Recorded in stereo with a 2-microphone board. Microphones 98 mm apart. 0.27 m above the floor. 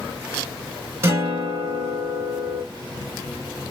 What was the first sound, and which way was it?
A guitar, 30° right (ahead or behind).